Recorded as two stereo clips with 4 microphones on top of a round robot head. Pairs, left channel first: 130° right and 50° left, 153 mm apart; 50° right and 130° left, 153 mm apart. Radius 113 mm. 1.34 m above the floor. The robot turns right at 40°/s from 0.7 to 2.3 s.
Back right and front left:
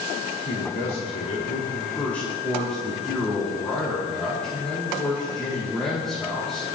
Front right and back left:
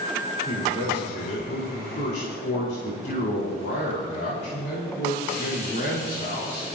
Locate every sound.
0.5 s a man speaking: 110° right, 5 m; by 6.7 s 45° right, 5 m